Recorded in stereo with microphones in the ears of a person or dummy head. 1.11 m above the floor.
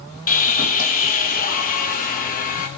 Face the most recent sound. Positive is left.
turn(degrees=45)  # may be behind; listen again after turning